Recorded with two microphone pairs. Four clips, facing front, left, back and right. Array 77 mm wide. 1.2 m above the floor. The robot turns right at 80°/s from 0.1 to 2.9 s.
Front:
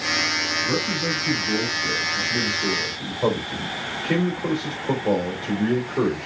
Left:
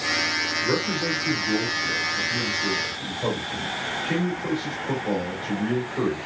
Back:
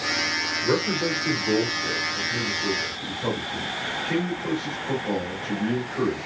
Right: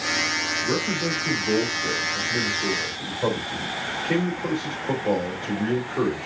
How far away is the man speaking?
About 2.5 m.